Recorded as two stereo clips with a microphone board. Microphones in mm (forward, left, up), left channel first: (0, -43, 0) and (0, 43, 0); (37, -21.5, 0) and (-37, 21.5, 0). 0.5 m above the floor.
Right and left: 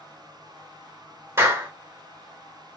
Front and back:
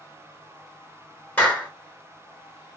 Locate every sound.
1.4 s a clap: 35° left, 1.1 m